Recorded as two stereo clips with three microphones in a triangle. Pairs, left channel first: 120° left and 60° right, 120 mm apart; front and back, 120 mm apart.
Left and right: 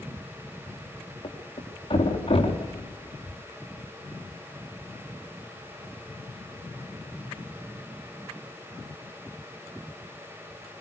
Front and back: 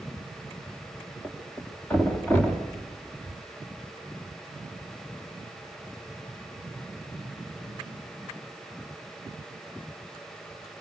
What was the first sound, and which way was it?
A thud, 75° left.